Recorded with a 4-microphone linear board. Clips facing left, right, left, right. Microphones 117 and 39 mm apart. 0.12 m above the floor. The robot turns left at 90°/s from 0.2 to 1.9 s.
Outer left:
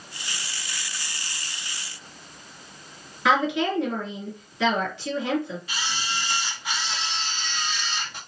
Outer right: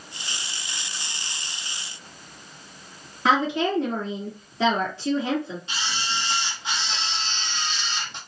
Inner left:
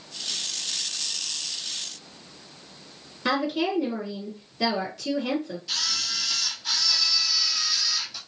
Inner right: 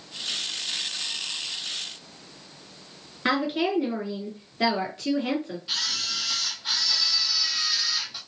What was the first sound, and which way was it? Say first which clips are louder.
A woman speaking: even, even; 40° right (ahead or behind).